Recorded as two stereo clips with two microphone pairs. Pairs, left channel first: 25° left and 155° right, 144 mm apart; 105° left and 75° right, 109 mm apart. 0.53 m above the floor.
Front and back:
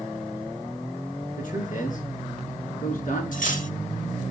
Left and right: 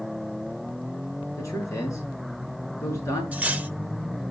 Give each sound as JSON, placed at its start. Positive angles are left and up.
{"t": 1.4, "sound": "a man speaking", "azimuth_deg": 45, "distance_m": 6.0}
{"t": 3.3, "sound": "cutlery clinking", "azimuth_deg": 5, "distance_m": 0.9}